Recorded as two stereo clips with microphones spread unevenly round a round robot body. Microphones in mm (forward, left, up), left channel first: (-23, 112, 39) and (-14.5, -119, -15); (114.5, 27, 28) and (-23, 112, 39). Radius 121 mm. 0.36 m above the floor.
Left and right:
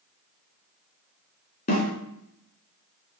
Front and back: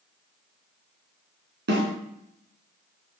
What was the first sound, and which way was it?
A snare drum, 150° left.